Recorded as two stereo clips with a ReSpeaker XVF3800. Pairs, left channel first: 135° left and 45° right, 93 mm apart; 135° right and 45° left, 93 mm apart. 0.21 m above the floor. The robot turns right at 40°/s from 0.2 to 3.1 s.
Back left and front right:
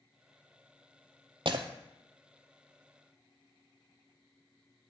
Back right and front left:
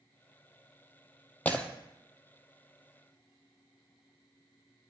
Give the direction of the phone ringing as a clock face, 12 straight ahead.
No phone ringing in this recording.